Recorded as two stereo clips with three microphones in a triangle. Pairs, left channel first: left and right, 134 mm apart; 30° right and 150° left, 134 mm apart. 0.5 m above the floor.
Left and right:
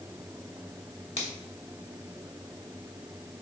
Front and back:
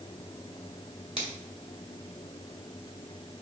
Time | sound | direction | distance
1.2 | a finger snap | 115° left | 2.0 m